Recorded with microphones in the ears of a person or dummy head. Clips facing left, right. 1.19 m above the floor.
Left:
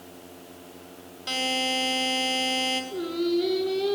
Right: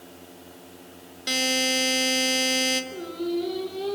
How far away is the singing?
About 5.5 m.